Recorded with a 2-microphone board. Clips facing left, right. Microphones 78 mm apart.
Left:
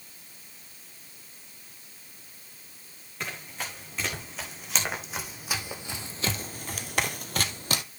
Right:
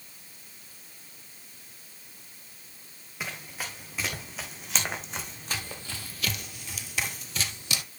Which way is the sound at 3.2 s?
5° right (ahead or behind).